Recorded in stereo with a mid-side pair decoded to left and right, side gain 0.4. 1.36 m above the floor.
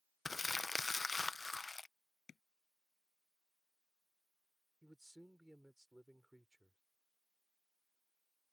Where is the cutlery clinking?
No cutlery clinking in this recording.